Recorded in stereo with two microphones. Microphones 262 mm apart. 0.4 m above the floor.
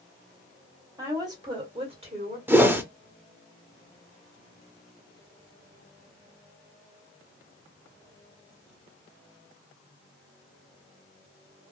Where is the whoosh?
10° right (ahead or behind), 0.5 m.